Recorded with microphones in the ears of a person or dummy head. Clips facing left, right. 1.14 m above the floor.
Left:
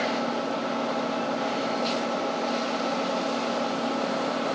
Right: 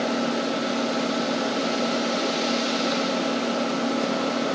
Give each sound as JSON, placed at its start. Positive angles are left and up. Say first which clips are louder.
{"t": 0.0, "sound": "an engine running", "louder": "right 3 dB", "side_deg": -20}